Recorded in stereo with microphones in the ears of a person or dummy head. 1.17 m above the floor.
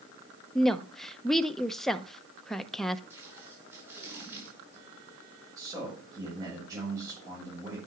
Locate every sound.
0.6 s a woman speaking: 10° left (ahead or behind), 0.6 m
3.1 s tape being pulled: 5° right (ahead or behind), 5.5 m
5.6 s a man speaking: 15° right (ahead or behind), 6 m